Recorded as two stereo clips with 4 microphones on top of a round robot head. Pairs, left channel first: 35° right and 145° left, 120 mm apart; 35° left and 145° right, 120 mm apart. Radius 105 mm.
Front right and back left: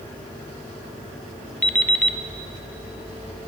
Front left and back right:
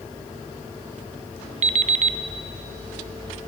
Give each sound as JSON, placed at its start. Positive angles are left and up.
{"t": 1.6, "sound": "an alarm clock", "azimuth_deg": -120, "distance_m": 0.6}